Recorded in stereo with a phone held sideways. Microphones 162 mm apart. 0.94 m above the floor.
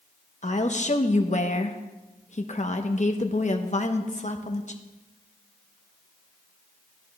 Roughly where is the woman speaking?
Left.